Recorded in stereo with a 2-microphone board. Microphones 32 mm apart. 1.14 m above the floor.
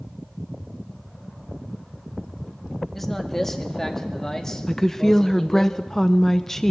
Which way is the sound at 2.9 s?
10° left (ahead or behind).